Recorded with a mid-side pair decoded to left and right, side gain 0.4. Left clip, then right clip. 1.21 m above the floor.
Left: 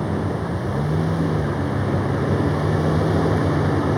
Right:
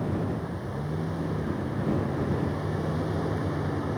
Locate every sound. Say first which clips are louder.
0.0 s a vehicle: left 7 dB; 65° left